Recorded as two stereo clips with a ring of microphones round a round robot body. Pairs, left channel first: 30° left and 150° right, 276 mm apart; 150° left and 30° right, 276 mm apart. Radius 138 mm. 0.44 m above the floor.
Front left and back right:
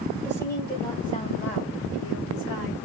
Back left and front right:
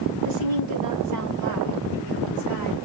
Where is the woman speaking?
50° right, 1.8 m; by 2.8 s 5° right, 2.5 m.